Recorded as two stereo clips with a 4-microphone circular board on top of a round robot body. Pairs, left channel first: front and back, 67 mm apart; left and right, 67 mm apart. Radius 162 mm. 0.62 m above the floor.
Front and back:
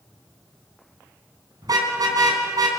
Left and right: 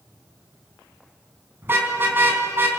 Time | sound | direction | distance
1.6 | a car horn | 150° right | 3.5 m